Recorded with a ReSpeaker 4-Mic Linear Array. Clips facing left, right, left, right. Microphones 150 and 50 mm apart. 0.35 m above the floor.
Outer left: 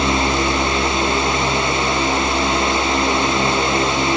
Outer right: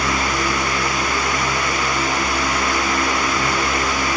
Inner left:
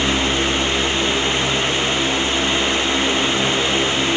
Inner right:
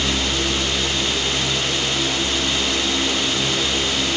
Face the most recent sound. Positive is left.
No sound to turn to.